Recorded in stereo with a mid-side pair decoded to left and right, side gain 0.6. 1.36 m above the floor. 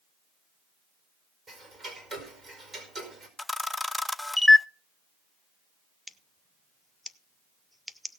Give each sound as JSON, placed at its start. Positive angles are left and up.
{"t": 1.5, "sound": "ticking", "azimuth_deg": -30, "distance_m": 5.0}
{"t": 3.4, "sound": "a camera shutter", "azimuth_deg": 5, "distance_m": 0.5}
{"t": 6.1, "sound": "scissors", "azimuth_deg": -5, "distance_m": 0.7}